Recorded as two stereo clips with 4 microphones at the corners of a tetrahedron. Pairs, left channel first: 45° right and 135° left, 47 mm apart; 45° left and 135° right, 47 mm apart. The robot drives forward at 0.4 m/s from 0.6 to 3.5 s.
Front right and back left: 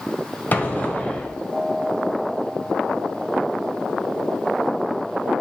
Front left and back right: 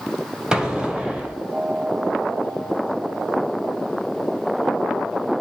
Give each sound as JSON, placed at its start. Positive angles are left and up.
{"t": 0.5, "sound": "an explosion", "azimuth_deg": -65, "distance_m": 1.4}